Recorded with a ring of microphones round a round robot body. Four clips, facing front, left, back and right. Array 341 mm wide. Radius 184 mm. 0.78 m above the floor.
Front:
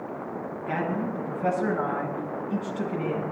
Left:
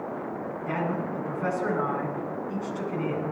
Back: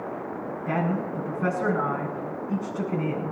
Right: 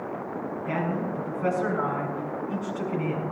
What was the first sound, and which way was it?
A man speaking, 160° left.